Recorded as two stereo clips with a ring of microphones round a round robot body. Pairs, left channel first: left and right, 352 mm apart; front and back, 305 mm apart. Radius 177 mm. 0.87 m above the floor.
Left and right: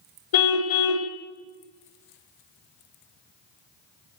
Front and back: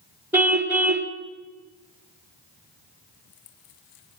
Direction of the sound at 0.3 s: 95° left.